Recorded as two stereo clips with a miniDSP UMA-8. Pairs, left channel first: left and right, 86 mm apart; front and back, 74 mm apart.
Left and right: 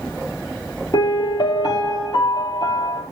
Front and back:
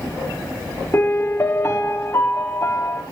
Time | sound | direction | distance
0.9 | a piano | 55° left | 1.9 m